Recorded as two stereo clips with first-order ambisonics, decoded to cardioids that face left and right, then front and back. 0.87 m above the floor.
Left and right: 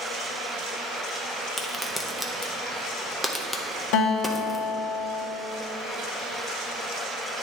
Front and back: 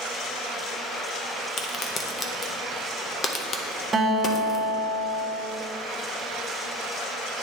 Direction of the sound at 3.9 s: 105° left.